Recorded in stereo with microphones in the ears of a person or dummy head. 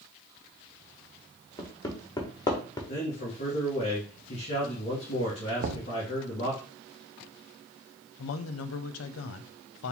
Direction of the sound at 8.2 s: 80° left.